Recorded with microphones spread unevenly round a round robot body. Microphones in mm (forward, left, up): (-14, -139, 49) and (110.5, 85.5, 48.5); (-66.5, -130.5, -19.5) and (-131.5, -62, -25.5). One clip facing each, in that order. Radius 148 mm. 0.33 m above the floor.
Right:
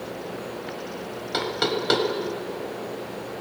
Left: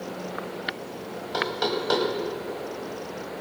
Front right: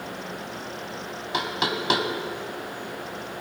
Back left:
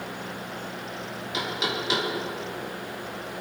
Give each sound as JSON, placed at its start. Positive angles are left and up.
{"t": 1.3, "sound": "knocking", "azimuth_deg": -60, "distance_m": 1.7}